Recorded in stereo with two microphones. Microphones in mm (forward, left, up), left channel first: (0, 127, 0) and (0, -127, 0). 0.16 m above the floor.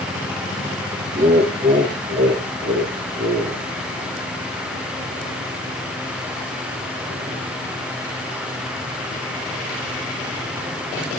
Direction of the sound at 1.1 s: 30° right (ahead or behind).